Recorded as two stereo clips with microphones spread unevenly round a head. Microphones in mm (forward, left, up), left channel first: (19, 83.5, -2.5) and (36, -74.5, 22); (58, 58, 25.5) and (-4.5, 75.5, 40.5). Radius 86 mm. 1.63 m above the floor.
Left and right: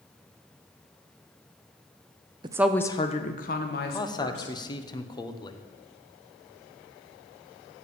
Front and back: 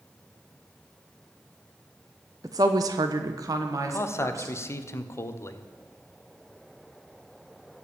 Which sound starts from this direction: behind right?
A woman speaking, at 2.4 s.